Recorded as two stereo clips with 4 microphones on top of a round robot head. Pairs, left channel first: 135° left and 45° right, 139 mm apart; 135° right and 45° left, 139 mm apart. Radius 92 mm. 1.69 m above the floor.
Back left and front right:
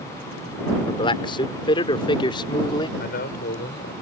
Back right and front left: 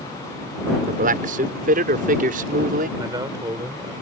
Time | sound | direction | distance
0.9 | a man speaking | 75° left | ?
3.0 | a man speaking | 110° left | ?